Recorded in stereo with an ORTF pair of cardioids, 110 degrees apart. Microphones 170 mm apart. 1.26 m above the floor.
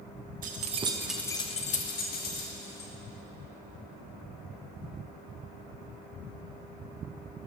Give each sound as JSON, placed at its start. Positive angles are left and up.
{"t": 0.4, "sound": "keys jangling", "azimuth_deg": -55, "distance_m": 1.2}